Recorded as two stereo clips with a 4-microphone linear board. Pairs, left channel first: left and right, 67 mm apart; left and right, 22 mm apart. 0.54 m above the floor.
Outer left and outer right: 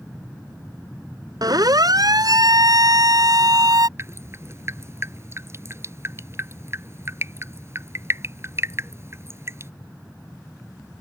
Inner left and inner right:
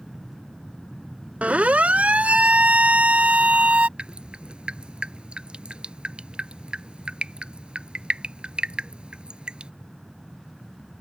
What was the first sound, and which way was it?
A siren, 70° right (ahead or behind).